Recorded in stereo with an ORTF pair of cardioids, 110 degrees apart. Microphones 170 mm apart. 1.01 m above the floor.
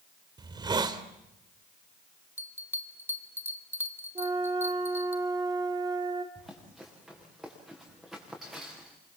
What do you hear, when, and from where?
0.4 s a hiss: 25° right, 2.5 m
2.4 s a bell: 15° right, 2.5 m
4.2 s a flute: 25° right, 2.5 m
6.3 s running footsteps: straight ahead, 8 m